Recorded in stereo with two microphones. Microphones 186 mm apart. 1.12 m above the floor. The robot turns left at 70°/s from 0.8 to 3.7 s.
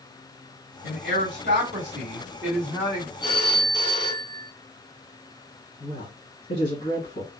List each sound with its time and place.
0.8 s a man speaking: 60° right, 2.5 m; by 3.1 s 140° left, 2.5 m
3.2 s a phone ringing: 135° left, 2.5 m; by 4.5 s 100° left, 2.5 m
5.8 s a woman speaking: 80° left, 1.8 m